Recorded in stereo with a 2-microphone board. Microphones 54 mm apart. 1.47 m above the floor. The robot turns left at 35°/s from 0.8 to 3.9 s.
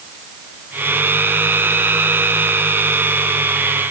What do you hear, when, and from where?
Only background noise.